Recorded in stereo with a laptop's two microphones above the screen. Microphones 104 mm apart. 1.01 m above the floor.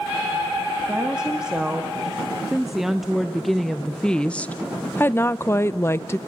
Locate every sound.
0.9 s a woman speaking: 10° right (ahead or behind), 2.5 m; by 6.2 s 25° left (ahead or behind), 1.0 m